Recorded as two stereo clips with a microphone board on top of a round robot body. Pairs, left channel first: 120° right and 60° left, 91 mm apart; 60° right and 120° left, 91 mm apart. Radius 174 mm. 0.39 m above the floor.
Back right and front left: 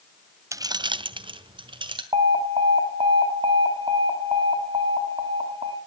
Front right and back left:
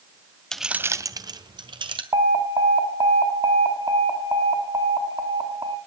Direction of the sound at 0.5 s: 20° left.